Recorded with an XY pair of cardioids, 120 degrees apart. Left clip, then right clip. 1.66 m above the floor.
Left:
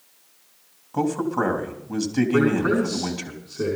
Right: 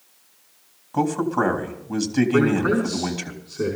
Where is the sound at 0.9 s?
5° right, 3 m.